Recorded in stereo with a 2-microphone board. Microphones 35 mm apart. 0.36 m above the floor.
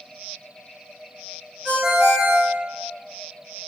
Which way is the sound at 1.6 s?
15° right (ahead or behind).